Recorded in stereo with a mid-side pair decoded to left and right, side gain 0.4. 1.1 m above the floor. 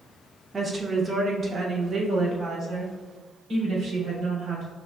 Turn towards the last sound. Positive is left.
turn(degrees=-70)